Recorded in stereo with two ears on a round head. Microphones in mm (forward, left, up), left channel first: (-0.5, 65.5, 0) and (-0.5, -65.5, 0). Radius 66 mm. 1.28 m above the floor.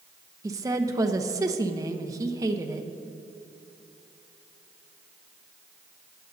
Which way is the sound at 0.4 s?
25° right (ahead or behind).